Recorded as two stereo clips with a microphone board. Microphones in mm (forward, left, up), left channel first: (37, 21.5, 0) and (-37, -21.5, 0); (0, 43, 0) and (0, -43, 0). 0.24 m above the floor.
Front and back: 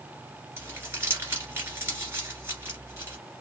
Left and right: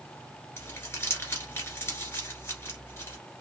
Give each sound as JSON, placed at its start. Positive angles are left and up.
{"t": 0.6, "sound": "crumpling", "azimuth_deg": 150, "distance_m": 1.7}